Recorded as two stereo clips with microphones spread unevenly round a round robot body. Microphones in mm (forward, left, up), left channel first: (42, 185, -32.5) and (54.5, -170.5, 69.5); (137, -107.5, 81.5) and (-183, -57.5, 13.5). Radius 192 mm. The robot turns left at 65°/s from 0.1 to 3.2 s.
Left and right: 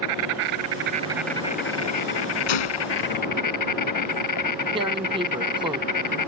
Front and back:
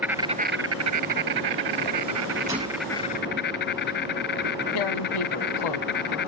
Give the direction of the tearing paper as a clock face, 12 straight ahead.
12 o'clock.